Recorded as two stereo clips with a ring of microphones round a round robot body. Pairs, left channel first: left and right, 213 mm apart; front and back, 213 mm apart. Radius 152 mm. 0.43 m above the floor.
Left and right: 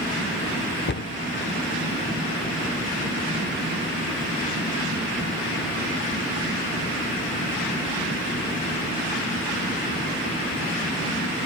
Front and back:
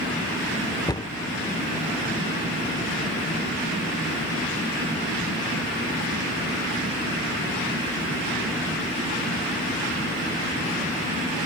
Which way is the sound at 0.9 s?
70° left.